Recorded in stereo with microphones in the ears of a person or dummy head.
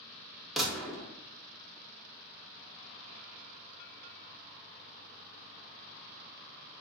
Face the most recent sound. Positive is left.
turn(degrees=0)  # may be behind; listen again after turning